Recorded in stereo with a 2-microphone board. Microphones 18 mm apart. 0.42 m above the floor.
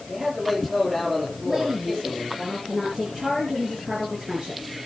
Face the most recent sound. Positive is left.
turn(degrees=-10)  # may be behind; listen again after turning